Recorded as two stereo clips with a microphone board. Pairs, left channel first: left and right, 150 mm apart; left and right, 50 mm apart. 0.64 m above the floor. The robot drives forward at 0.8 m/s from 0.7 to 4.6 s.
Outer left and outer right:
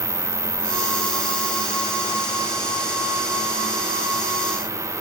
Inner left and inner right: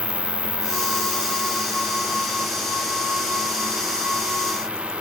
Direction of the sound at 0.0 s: 20° left (ahead or behind).